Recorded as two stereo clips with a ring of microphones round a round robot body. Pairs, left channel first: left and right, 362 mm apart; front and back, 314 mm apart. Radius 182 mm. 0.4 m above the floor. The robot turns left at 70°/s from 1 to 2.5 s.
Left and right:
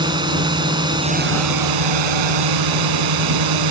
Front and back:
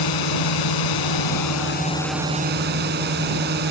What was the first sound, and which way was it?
A drone, 10° right.